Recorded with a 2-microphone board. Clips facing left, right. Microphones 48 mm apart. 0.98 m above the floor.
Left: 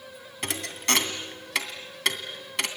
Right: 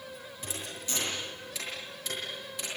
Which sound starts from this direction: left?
A thud, at 0.4 s.